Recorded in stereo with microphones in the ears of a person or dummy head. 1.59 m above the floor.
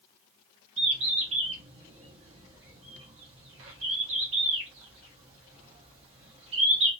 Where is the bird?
35° right (ahead or behind), 0.8 m.